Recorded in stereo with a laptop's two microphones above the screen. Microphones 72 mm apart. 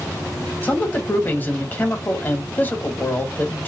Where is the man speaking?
25° left (ahead or behind), 1.4 m.